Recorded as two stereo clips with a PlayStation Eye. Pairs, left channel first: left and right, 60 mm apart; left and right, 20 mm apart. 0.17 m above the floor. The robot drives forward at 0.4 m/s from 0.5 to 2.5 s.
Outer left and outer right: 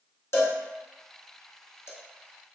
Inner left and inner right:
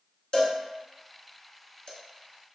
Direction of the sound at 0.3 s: 50° left (ahead or behind).